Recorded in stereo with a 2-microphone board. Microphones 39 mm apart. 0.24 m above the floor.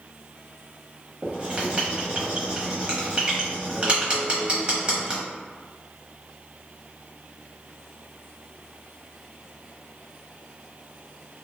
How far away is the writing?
About 0.8 m.